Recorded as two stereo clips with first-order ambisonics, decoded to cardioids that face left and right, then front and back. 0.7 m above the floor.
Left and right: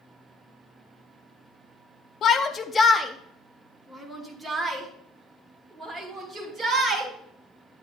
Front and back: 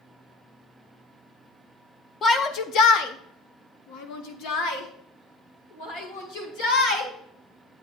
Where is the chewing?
I don't hear chewing.